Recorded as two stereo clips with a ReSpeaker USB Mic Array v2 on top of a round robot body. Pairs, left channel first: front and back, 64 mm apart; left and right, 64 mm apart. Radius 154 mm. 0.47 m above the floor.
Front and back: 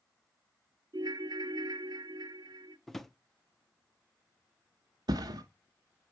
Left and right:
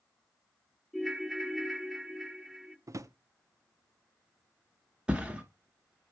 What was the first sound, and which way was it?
A ringtone, straight behind.